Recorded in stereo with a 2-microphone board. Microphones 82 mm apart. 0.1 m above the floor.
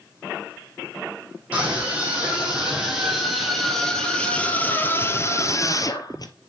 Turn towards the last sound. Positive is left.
turn(degrees=55)  # may be behind; listen again after turning